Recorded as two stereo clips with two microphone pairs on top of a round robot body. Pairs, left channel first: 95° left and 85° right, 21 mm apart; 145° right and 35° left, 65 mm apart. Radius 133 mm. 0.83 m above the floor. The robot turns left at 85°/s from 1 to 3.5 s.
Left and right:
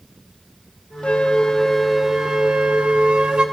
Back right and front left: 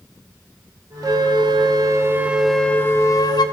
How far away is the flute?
About 1.0 m.